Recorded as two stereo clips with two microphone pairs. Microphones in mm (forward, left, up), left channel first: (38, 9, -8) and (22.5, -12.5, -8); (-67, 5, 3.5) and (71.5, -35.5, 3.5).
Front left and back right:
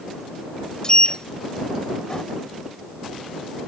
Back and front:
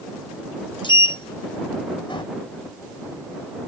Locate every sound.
0.8 s a sliding door: 110° left